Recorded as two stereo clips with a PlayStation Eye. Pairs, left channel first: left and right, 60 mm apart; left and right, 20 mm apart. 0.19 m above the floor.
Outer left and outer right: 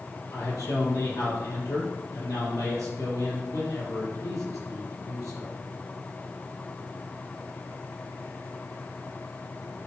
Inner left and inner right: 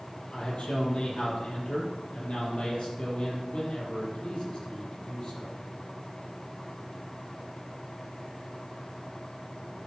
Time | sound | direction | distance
0.3 | a man speaking | 70° left (ahead or behind) | 6 m